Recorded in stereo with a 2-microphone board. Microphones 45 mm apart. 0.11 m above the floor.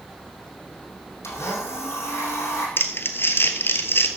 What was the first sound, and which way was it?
A blender, 75° left (ahead or behind).